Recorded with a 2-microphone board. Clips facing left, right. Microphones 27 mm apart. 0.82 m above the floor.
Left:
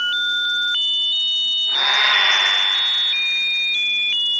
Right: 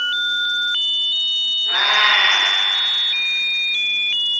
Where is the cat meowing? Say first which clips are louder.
Right 2 dB; 75° right (ahead or behind), 4.5 m.